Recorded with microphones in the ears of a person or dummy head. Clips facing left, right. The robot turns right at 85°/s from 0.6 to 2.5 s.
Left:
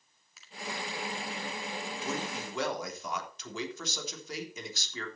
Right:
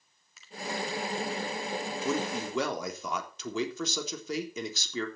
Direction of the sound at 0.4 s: Centre (ahead or behind).